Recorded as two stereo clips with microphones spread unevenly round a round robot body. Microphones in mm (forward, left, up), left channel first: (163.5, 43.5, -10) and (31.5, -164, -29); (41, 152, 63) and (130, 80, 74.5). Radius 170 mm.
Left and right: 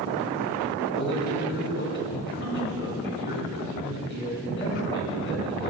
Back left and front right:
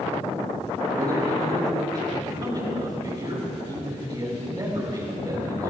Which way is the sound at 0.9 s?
15° left.